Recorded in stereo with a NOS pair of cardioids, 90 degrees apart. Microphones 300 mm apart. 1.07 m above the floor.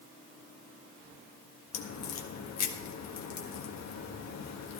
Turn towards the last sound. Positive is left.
turn(degrees=65)